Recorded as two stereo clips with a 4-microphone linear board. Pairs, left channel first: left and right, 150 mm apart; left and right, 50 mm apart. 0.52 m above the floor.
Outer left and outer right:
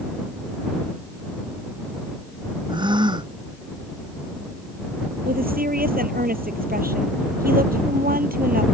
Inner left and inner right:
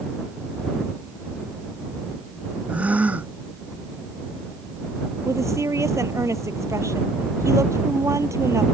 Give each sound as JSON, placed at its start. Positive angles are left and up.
{"t": 2.7, "sound": "a gasp", "side_deg": -30}
{"t": 5.2, "sound": "a woman speaking", "side_deg": -80}